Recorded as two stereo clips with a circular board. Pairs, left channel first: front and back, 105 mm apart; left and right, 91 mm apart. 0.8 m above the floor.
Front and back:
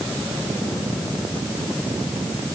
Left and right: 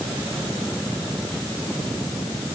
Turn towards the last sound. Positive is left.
No sound to turn to.